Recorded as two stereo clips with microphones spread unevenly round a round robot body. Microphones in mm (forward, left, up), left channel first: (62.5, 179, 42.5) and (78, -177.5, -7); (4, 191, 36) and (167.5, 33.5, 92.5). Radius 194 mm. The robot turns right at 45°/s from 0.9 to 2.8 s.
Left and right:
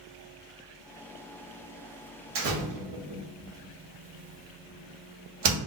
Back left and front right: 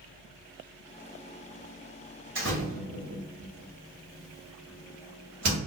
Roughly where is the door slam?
Right.